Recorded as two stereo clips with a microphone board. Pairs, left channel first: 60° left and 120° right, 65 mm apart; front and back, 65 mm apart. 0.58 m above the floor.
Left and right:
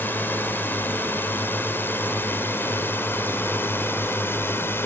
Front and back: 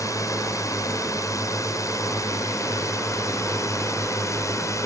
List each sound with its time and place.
0.0 s a drone: 10° left; by 4.9 s 15° left